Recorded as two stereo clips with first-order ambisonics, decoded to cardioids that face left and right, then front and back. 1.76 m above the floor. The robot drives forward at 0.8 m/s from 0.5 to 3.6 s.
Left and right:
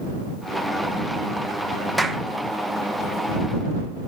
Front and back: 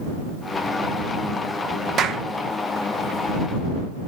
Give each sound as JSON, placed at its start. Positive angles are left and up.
{"t": 2.0, "sound": "a clap", "azimuth_deg": 180, "distance_m": 0.9}